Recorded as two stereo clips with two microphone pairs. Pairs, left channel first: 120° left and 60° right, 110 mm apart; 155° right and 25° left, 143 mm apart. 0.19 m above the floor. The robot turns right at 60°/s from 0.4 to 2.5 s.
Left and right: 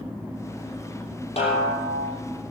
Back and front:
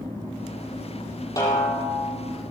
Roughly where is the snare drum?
Behind left.